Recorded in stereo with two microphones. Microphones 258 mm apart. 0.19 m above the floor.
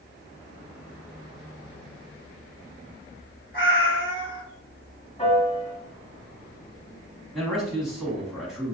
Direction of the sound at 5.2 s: 25° left (ahead or behind).